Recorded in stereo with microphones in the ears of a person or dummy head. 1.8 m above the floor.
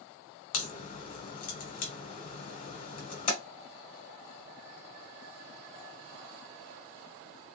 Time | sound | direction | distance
0.5 | a crack | 45° left (ahead or behind) | 1.1 m